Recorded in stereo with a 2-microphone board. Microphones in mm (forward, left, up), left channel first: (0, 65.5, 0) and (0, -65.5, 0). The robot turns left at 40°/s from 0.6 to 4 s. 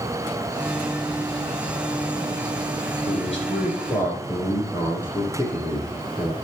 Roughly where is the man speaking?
Ahead left.